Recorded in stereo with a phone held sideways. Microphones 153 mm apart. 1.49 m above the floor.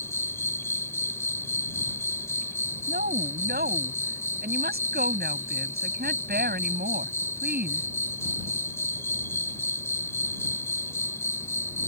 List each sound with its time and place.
0.0 s an insect: 15° left (ahead or behind)
2.9 s a woman speaking: 80° right